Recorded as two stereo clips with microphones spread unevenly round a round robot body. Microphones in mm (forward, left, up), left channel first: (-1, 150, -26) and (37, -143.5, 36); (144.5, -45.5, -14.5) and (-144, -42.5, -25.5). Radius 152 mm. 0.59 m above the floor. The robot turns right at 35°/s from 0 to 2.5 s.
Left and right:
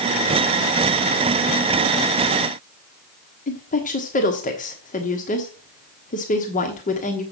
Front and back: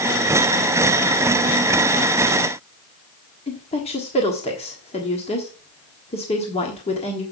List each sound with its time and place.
3.5 s a woman speaking: 65° left, 1.3 m